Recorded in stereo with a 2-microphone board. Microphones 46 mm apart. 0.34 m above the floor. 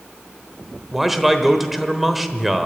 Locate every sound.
0.9 s a man speaking: 5° right (ahead or behind), 0.9 m